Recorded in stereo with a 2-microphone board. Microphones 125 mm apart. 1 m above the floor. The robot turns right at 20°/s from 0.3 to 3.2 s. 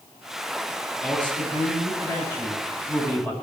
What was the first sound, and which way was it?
A man speaking, 170° left.